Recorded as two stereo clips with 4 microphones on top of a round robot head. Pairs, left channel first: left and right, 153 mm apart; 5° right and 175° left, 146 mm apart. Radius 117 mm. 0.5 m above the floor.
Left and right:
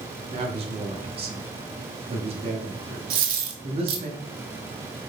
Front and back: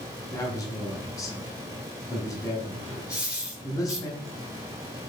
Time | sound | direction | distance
0.3 | a man speaking | 65° right | 1.0 m
3.1 | a dropped coin | 100° right | 0.9 m